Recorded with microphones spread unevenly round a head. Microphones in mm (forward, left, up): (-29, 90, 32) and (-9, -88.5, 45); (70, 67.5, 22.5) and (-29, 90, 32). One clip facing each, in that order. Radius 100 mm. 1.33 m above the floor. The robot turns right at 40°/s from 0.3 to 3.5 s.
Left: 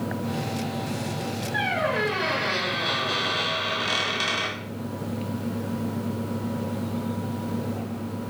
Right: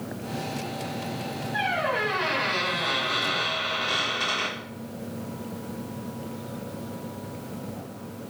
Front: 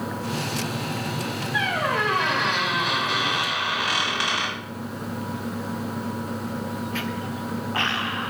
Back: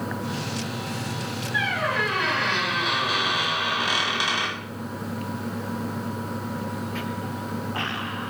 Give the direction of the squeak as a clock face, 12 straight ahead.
11 o'clock.